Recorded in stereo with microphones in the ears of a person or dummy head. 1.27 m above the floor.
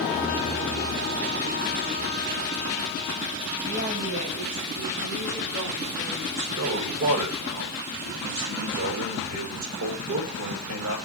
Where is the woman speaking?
45° right (ahead or behind), 1.1 m; by 6.2 s 85° right, 3.5 m.